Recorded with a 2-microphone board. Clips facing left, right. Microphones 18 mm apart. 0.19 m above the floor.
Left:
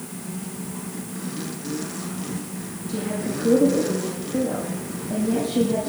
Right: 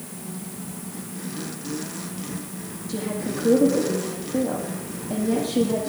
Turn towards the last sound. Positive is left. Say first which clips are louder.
# left 1 dB
turn(degrees=-5)  # may be behind; listen again after turning